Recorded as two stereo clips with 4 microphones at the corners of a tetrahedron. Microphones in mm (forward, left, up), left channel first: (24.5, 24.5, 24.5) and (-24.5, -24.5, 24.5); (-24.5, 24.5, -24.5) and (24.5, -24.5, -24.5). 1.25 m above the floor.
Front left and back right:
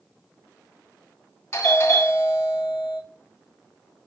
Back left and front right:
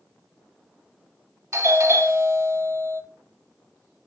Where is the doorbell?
5° right, 4 m.